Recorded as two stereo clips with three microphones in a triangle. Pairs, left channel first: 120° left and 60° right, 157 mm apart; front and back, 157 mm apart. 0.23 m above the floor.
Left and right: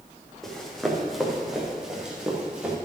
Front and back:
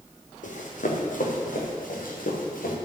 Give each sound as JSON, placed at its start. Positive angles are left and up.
{"t": 0.4, "sound": "running footsteps", "azimuth_deg": 35, "distance_m": 3.0}